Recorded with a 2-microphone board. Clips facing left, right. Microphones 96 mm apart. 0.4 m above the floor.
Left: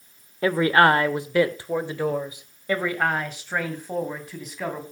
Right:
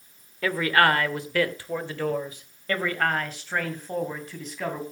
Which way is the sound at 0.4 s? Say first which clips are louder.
Left 4 dB; 25° left (ahead or behind).